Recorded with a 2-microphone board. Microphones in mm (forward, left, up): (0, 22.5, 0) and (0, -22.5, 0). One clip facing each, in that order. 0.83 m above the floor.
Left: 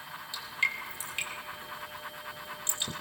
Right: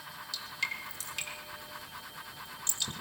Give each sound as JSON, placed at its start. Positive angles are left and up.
{"t": 0.3, "sound": "dripping", "side_deg": 25, "distance_m": 2.5}